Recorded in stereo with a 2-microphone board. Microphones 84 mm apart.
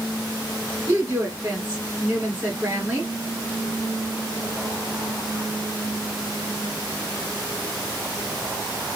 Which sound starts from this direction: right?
A woman speaking, at 0.9 s.